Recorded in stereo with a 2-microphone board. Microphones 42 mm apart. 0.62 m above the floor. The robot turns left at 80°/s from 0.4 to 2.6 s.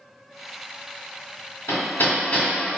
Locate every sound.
1.7 s hammering: 80° left, 1.7 m; by 2.5 s 15° left (ahead or behind), 1.7 m